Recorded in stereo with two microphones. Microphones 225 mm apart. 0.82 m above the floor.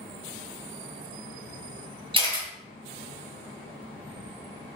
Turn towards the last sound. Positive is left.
turn(degrees=-25)  # may be behind; listen again after turning